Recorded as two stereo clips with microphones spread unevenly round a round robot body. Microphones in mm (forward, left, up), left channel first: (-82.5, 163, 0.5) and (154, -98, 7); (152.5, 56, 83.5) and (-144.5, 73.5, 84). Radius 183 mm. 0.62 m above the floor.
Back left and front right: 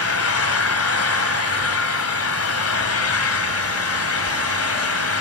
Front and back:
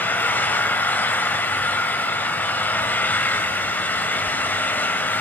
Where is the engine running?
80° left, 1.6 m.